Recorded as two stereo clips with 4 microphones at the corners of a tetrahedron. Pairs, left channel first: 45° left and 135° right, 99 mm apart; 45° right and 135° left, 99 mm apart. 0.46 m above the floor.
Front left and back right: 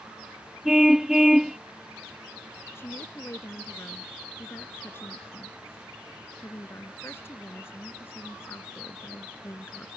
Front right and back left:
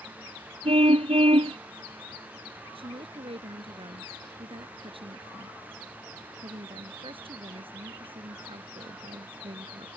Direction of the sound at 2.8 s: 115° left.